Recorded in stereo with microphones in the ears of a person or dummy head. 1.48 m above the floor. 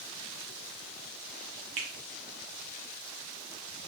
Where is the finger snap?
30° right (ahead or behind), 0.6 m.